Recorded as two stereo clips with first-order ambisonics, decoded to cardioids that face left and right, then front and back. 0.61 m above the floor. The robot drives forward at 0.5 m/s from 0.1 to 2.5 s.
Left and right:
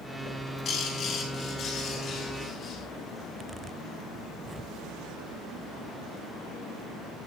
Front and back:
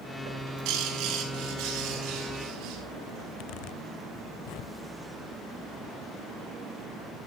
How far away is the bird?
About 5 m.